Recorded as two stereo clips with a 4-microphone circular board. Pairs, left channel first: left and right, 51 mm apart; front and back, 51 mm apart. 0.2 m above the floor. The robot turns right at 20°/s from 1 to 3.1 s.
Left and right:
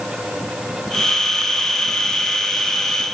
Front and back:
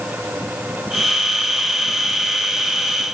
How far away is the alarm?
I don't hear an alarm.